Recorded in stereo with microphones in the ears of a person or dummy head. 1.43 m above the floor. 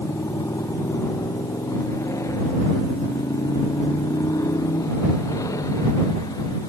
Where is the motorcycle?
10° left (ahead or behind); by 6.7 s 15° left (ahead or behind).